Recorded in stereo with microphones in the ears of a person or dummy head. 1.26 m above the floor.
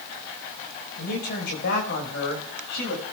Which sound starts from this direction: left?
A man speaking, at 1.0 s.